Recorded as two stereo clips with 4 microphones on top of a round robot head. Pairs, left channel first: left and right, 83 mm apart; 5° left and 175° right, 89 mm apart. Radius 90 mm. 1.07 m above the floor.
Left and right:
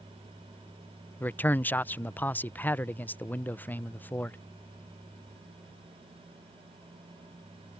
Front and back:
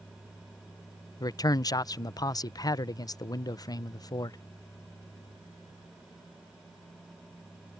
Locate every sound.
1.2 s a man speaking: 30° left